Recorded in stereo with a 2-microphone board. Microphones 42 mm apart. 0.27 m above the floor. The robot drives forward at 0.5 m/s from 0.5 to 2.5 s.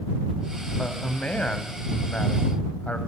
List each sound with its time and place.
0.8 s a man speaking: 30° left (ahead or behind), 1.6 m; by 3.0 s 35° left (ahead or behind), 1.3 m